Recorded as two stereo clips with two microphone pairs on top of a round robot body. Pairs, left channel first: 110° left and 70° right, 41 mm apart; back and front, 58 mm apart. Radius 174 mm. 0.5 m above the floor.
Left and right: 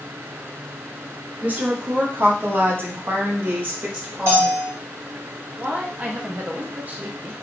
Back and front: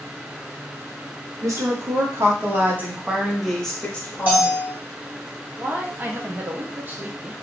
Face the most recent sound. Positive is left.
turn(degrees=-30)